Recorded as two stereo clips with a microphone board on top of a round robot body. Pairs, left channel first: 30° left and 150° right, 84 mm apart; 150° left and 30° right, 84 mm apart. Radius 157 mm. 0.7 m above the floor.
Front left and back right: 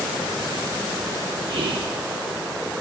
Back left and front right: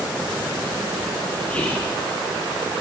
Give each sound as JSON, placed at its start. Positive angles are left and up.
{"t": 1.5, "sound": "whispering", "azimuth_deg": -140, "distance_m": 1.9}